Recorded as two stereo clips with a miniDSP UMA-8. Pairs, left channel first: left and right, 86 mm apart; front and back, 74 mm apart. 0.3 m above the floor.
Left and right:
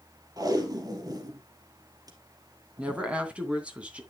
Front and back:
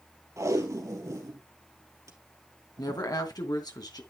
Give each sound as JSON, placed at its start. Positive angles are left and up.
{"t": 0.4, "sound": "tape being pulled", "azimuth_deg": -135, "distance_m": 2.5}
{"t": 2.8, "sound": "a woman speaking", "azimuth_deg": -15, "distance_m": 2.5}